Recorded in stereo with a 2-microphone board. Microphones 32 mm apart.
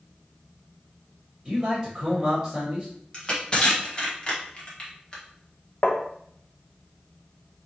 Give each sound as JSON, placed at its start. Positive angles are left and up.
{"t": 1.4, "sound": "a man speaking", "side_deg": -5, "distance_m": 1.6}
{"t": 3.1, "sound": "crushing", "side_deg": 30, "distance_m": 1.4}
{"t": 5.8, "sound": "tapping", "side_deg": 45, "distance_m": 0.7}